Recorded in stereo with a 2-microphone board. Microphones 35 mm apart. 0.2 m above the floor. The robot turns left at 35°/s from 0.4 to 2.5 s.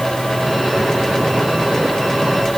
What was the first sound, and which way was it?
Only background noise.